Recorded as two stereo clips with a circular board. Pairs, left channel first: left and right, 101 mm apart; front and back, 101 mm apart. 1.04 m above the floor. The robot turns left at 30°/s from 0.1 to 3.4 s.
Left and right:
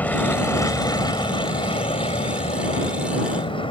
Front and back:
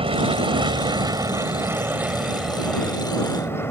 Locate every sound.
0.0 s an aircraft: 165° left; by 3.7 s 65° left